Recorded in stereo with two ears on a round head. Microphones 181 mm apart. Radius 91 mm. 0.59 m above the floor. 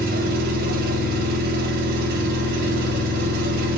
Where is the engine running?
50° right (ahead or behind), 3 m.